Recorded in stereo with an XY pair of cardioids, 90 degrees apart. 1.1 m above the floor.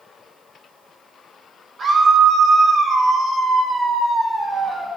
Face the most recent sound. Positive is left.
turn(degrees=-40)